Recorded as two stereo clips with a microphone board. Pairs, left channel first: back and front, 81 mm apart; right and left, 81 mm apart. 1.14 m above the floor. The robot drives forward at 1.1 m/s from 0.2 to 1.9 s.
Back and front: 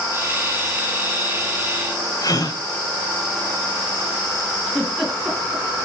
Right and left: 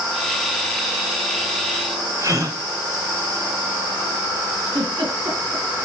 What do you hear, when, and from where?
2.2 s a gasp: 140° left, 3 m
4.7 s a giggle: 90° left, 5 m